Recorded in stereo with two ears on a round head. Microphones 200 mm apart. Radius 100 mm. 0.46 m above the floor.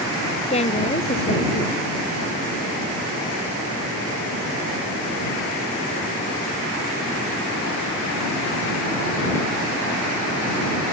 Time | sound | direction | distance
0.5 | a woman speaking | 30° left (ahead or behind) | ?